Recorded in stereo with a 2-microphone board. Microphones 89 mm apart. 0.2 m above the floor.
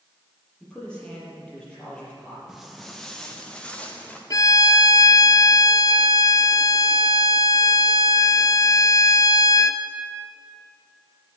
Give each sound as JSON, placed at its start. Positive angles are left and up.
{"t": 0.6, "sound": "a man speaking", "side_deg": 10, "distance_m": 6.5}
{"t": 2.5, "sound": "footsteps", "side_deg": -5, "distance_m": 1.5}
{"t": 4.3, "sound": "a violin", "side_deg": 40, "distance_m": 0.6}